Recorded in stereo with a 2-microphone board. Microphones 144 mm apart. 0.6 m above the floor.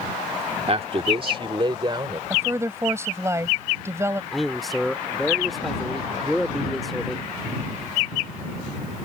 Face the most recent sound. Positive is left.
turn(degrees=0)  # may be behind; listen again after turning